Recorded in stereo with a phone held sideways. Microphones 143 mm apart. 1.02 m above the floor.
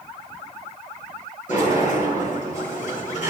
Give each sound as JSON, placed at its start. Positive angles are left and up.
{"t": 1.5, "sound": "a sliding door", "side_deg": 60, "distance_m": 8.5}